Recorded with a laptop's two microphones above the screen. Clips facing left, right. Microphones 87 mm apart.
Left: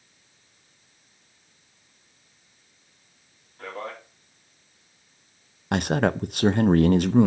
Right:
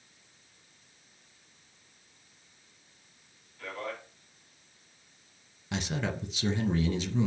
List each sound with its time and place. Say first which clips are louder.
3.6 s a man speaking: left 3 dB; 40° left (ahead or behind), 3 m
5.7 s a man speaking: left 11 dB; 60° left (ahead or behind), 0.6 m